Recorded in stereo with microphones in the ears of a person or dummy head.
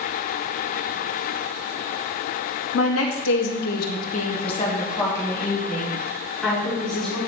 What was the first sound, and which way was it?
A woman speaking, 75° left (ahead or behind).